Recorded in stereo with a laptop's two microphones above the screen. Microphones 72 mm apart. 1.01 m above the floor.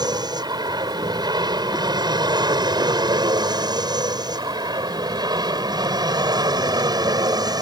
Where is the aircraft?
70° right (ahead or behind); by 7.6 s 65° right (ahead or behind).